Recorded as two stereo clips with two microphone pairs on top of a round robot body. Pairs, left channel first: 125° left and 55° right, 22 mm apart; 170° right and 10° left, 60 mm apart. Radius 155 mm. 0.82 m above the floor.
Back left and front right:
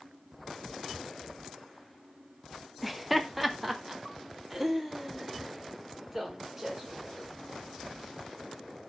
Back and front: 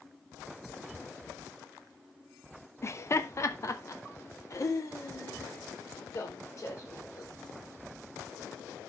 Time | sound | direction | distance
2.8 | laughter | 140° right | 1.4 m